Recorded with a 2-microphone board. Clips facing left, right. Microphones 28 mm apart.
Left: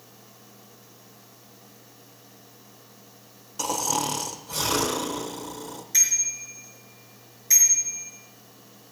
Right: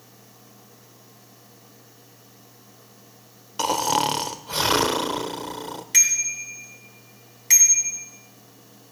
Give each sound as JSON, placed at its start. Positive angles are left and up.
{"t": 3.6, "sound": "snoring", "side_deg": -45, "distance_m": 0.9}
{"t": 5.9, "sound": "a bicycle bell", "side_deg": -70, "distance_m": 2.5}